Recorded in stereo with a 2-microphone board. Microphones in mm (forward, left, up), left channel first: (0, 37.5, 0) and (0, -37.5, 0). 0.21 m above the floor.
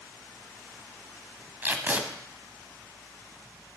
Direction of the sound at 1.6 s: 25° right (ahead or behind).